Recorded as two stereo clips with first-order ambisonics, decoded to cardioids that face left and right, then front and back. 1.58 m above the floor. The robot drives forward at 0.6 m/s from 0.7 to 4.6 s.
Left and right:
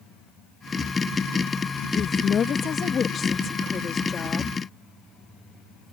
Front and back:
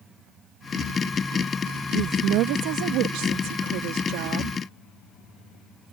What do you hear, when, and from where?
1.9 s a woman speaking: 150° left; by 4.6 s 160° left